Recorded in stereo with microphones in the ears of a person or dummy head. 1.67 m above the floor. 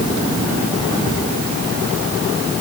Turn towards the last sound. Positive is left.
No sound to turn to.